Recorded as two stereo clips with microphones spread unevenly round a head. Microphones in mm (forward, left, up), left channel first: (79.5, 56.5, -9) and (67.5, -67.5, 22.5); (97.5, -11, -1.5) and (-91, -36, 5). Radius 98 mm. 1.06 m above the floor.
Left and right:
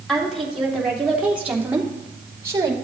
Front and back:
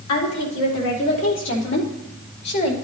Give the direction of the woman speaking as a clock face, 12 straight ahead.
12 o'clock.